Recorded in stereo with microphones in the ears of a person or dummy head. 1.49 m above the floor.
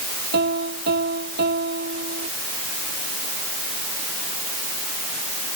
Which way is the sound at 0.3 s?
50° right (ahead or behind).